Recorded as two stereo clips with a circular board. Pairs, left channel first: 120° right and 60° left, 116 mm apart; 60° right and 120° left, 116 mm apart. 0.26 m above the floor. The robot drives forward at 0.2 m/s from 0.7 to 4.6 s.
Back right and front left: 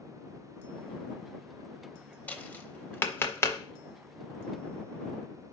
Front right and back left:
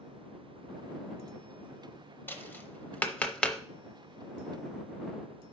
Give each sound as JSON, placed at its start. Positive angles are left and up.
{"t": 2.3, "sound": "tapping", "azimuth_deg": -75, "distance_m": 0.7}